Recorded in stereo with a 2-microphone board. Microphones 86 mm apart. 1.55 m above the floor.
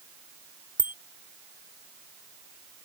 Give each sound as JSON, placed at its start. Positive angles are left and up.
{"t": 0.8, "sound": "a bicycle bell", "side_deg": 80}